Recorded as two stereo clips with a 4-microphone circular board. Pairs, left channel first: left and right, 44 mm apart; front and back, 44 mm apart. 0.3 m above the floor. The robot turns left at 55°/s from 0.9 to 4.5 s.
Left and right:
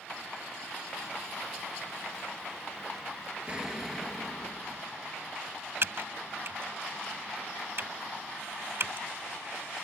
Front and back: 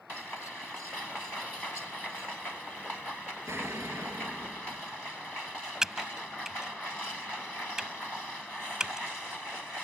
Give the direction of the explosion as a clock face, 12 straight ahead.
5 o'clock.